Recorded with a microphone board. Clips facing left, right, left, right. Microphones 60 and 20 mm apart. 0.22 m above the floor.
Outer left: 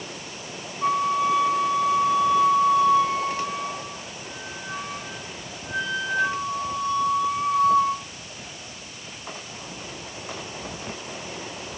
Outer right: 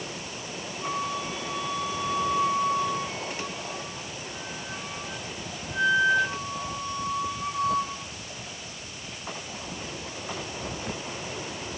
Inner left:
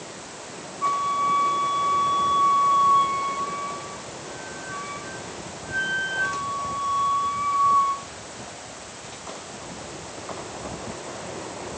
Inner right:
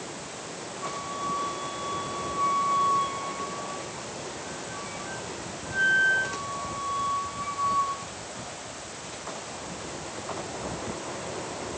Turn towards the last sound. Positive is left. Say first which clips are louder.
# outer left 10 dB, inner left 11 dB
turn(degrees=75)  # may be behind; listen again after turning